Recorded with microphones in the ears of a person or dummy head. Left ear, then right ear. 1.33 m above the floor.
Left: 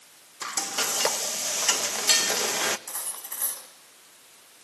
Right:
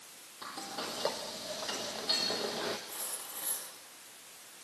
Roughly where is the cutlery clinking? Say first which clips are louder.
Left 4 dB; left.